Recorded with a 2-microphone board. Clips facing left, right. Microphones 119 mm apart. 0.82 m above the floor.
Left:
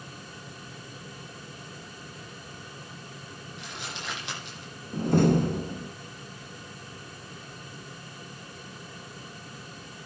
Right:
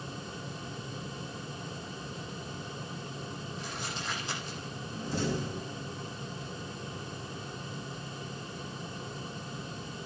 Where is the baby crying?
No baby crying in this recording.